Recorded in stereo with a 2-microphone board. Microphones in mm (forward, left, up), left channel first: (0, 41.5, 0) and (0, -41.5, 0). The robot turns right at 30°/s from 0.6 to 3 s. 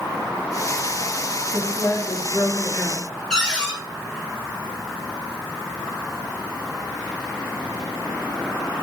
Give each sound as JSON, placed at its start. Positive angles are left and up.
{"t": 1.5, "sound": "a woman speaking", "azimuth_deg": 95, "distance_m": 1.9}
{"t": 3.3, "sound": "a cupboard door", "side_deg": 10, "distance_m": 1.8}